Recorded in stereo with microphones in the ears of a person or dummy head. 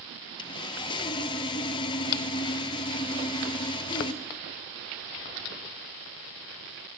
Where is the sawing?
25° left (ahead or behind), 1.5 m.